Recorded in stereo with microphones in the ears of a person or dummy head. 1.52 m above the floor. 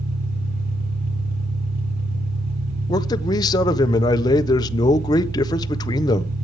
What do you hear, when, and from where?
0.0 s an engine running: 45° right (ahead or behind), 3 m
2.9 s a man speaking: 25° left (ahead or behind), 1.1 m